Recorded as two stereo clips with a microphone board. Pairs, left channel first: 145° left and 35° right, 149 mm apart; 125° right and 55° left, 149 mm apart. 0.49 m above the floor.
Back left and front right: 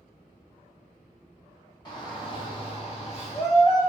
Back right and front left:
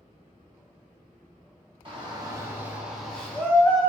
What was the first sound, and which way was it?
A shout, 95° left.